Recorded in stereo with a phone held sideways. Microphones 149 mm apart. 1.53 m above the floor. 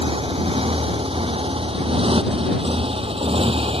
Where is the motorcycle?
40° right (ahead or behind).